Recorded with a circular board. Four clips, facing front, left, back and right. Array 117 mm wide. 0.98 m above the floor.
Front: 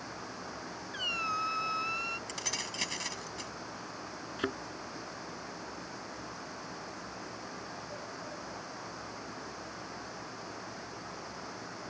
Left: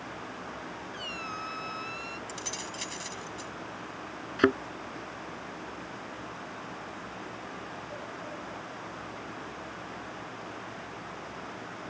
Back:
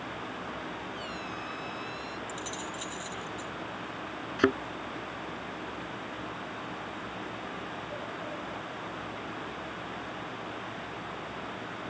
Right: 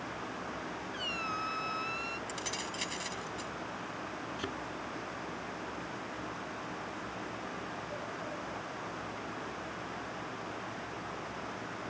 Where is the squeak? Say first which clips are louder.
Right 2 dB, front 2 dB; 5° right.